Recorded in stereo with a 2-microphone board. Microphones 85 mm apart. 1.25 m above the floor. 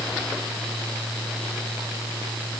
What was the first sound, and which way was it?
Only background noise.